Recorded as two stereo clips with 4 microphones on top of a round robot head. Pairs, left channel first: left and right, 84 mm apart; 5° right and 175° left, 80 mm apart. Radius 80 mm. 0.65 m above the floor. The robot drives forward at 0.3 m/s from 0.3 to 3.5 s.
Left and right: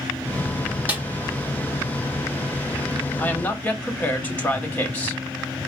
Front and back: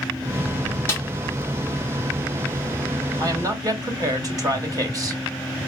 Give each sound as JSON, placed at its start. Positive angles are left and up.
{"t": 0.9, "sound": "a snare drum", "azimuth_deg": -35, "distance_m": 1.4}
{"t": 3.2, "sound": "a woman speaking", "azimuth_deg": 155, "distance_m": 1.6}